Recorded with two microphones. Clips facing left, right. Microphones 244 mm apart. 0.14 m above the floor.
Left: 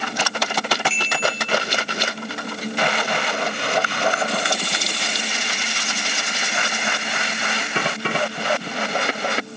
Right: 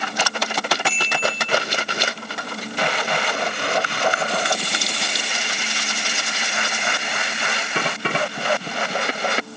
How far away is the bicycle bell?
About 9 m.